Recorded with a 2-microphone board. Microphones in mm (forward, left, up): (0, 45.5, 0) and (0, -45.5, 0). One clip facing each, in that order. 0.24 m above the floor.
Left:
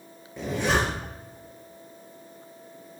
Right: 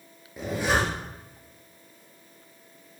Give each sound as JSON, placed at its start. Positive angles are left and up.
{"t": 0.4, "sound": "a zipper", "side_deg": -5, "distance_m": 4.0}